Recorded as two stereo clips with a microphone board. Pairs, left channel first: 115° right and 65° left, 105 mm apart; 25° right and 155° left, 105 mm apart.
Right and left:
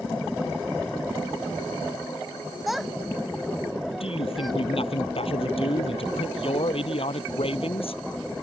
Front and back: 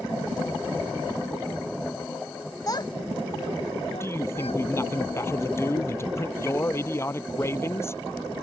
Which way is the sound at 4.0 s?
85° right.